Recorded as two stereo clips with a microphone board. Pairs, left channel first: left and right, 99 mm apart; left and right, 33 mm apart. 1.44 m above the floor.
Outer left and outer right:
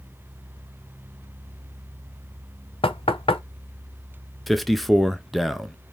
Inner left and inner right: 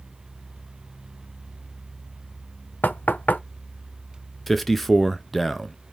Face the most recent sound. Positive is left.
turn(degrees=0)  # may be behind; listen again after turning